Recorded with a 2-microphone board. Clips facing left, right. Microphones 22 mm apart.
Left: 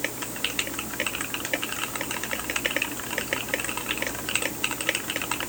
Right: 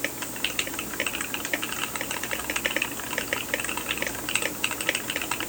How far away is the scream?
I don't hear a scream.